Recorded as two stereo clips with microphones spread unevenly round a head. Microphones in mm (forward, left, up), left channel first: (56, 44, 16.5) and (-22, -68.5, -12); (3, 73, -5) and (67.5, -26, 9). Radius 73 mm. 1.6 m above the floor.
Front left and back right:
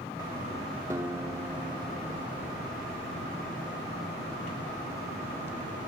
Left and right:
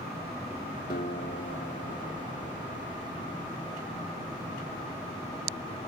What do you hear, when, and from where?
0.9 s a guitar: 160° left, 2.5 m